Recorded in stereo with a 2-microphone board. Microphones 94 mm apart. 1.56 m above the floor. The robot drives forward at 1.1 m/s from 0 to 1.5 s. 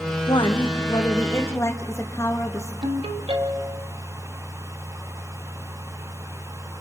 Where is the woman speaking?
60° left (ahead or behind), 1.4 m; by 2.7 s 30° left (ahead or behind), 2.5 m.